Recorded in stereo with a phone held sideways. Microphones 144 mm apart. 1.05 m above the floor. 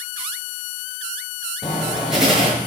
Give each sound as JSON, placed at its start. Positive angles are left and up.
{"t": 1.6, "sound": "writing", "side_deg": 0, "distance_m": 6.5}